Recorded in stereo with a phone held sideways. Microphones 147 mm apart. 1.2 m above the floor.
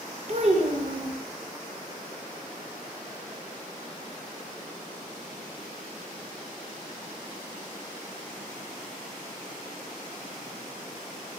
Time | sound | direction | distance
0.3 | a child speaking | 50° right (ahead or behind) | 0.6 m